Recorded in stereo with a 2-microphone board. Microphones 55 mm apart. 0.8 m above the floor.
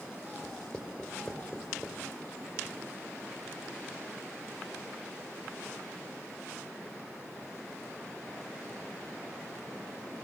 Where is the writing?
15° left (ahead or behind), 3 m.